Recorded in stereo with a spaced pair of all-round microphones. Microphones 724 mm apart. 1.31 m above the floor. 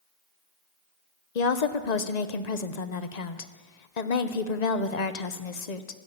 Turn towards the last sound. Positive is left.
turn(degrees=65)  # may be behind; listen again after turning